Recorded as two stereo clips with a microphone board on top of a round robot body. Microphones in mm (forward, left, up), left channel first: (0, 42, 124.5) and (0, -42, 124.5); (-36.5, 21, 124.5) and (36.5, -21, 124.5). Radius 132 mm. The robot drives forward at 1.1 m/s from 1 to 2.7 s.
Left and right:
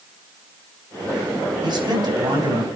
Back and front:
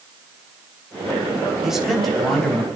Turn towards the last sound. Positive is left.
turn(degrees=-130)